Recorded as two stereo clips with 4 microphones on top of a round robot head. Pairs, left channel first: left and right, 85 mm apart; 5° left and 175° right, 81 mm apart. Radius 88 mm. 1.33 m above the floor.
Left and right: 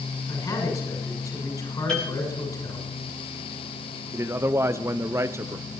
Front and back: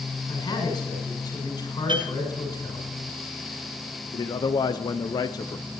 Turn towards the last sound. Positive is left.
turn(degrees=-30)